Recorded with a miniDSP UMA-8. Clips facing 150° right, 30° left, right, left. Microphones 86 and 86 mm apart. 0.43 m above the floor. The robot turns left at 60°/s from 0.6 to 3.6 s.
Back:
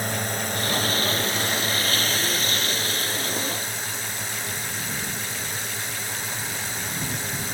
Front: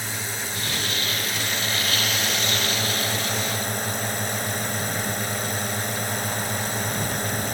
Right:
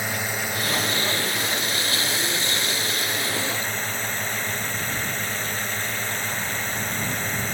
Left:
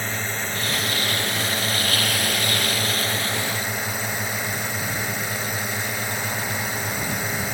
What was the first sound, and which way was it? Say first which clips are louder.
A drone: back 4 dB, even; 170° right.